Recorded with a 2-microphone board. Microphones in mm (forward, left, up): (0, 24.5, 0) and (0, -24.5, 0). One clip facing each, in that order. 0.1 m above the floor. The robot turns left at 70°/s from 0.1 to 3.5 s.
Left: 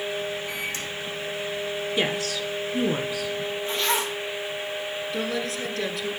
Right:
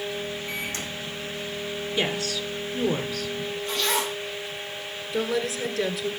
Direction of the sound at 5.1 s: 5° right (ahead or behind).